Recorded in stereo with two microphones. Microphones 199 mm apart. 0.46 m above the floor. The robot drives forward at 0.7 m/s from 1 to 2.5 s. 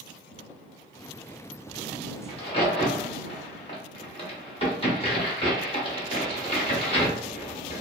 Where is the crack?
30° left (ahead or behind), 1.0 m.